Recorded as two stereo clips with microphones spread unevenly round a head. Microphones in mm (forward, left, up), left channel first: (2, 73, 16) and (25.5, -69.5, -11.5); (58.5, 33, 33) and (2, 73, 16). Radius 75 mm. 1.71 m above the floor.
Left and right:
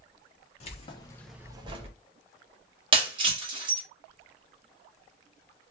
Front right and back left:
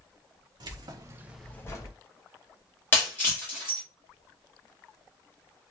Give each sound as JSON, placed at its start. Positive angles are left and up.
{"t": 0.6, "sound": "keys jangling", "azimuth_deg": 135, "distance_m": 1.2}
{"t": 2.9, "sound": "breaking glass", "azimuth_deg": -30, "distance_m": 1.4}